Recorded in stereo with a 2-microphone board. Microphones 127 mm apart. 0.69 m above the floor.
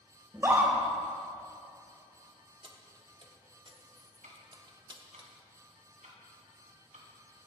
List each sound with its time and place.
0.3 s a scream: 20° right (ahead or behind), 2.5 m
2.6 s keys jangling: 40° right (ahead or behind), 1.0 m
4.2 s ticking: 80° right, 1.9 m